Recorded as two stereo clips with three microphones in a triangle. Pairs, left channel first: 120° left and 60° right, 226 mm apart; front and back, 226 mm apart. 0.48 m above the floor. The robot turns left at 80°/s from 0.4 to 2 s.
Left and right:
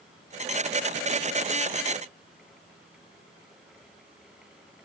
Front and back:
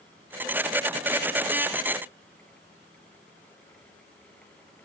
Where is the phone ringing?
I don't hear a phone ringing.